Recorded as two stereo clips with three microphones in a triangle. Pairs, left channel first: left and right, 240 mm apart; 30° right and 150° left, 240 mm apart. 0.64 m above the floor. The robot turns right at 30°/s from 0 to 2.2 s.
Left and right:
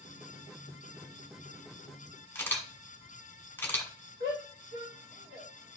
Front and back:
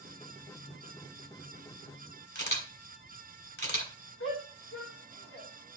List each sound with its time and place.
2.4 s a camera shutter: 10° left, 1.5 m
4.2 s a shout: 45° right, 3 m